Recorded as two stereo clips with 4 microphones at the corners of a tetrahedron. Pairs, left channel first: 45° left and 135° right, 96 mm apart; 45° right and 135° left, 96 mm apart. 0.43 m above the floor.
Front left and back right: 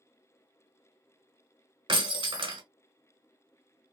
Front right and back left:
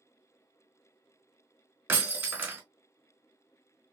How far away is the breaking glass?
About 1.2 m.